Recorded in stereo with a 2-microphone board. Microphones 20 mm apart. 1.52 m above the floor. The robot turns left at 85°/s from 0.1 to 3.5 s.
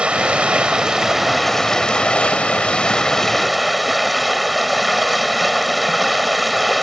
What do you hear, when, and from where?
0.0 s running water: 75° right; by 6.8 s straight ahead